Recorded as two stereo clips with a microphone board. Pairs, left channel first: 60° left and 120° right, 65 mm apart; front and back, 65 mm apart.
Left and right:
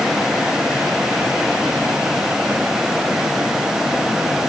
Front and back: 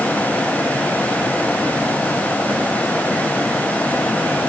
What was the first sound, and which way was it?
Only background noise.